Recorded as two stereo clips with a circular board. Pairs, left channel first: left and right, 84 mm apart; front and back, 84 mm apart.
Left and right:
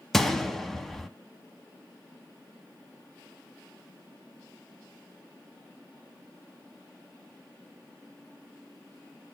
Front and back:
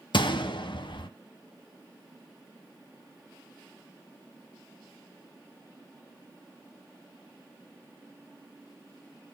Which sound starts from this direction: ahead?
A gunshot, at 0.1 s.